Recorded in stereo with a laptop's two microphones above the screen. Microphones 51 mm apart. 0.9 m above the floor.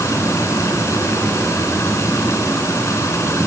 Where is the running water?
80° left, 7 m.